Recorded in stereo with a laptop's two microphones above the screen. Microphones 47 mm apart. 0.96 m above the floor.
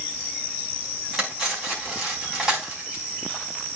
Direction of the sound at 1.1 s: 5° right (ahead or behind).